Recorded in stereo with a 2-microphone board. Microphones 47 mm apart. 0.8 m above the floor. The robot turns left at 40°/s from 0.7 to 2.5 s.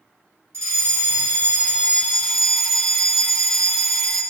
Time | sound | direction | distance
0.5 | a fire alarm | 110° right | 6.5 m